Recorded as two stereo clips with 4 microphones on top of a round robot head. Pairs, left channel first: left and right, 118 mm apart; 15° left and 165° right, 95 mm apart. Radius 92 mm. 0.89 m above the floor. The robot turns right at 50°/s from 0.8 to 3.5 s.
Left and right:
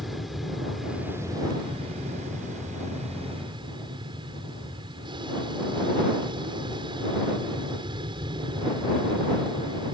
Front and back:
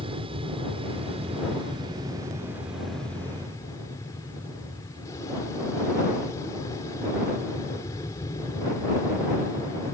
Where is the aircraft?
Straight behind; by 9.9 s 45° right.